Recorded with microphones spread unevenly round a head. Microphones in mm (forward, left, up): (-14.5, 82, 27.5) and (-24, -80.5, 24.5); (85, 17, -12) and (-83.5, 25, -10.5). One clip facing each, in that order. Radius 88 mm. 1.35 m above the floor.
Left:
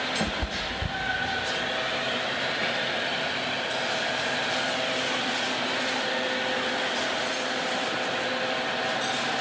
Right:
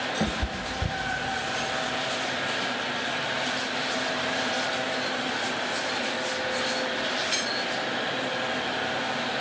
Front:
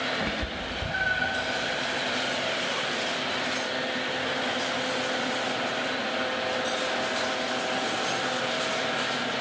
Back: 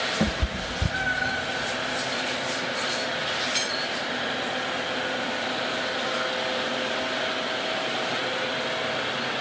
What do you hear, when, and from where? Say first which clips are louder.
0.2 s a cat meowing: right 1 dB, back 4 dB; 175° right, 1.4 m